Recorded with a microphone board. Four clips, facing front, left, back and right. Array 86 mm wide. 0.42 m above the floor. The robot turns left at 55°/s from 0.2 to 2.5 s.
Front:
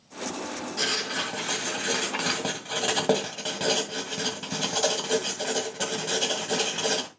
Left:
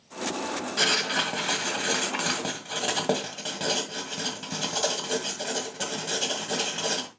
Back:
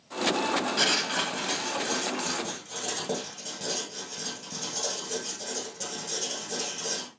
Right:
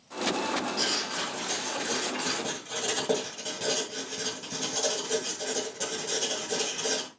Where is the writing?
125° left, 2 m; by 7.1 s 30° left, 2 m.